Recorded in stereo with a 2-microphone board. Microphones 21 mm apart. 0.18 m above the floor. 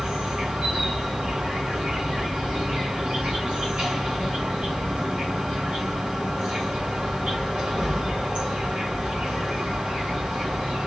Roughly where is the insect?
Right.